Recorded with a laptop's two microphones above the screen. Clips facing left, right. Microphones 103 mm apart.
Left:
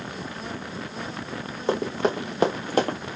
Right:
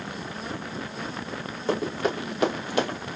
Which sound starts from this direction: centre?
Running footsteps, at 1.7 s.